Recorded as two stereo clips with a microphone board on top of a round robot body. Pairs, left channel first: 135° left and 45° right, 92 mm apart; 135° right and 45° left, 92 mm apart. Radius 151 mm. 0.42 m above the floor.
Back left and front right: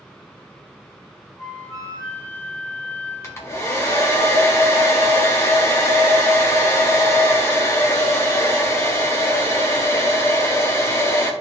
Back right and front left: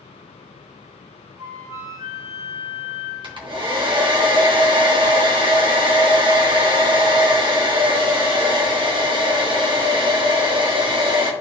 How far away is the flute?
About 3.5 m.